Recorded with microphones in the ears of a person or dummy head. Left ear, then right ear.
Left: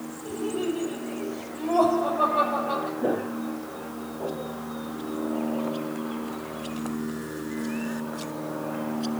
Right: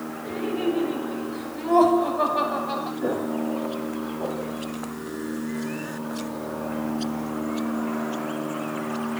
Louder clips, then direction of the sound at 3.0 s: Right 1 dB; centre (ahead or behind).